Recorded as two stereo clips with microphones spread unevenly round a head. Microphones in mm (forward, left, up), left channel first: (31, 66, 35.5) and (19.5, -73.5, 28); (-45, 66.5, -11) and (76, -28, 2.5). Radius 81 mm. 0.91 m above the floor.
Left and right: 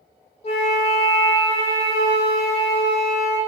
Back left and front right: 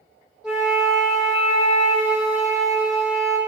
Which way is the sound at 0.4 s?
50° left.